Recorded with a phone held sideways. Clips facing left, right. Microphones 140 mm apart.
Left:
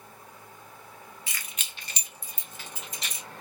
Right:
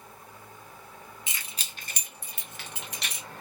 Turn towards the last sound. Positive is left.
turn(degrees=-70)  # may be behind; listen again after turning